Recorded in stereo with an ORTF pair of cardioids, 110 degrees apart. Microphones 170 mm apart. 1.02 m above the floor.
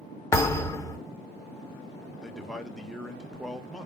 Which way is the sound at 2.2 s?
Straight ahead.